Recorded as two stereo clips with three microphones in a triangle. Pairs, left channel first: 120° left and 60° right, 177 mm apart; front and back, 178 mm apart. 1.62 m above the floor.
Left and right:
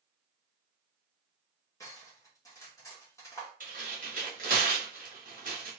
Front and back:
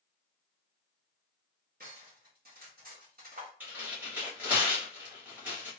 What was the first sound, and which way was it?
Cutlery clinking, 170° right.